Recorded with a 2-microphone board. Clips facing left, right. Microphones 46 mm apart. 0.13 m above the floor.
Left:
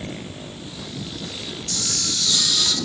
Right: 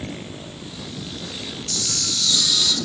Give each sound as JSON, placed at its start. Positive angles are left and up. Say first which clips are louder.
{"t": 1.7, "sound": "a camera shutter", "louder": "even", "side_deg": 35, "distance_m": 2.0}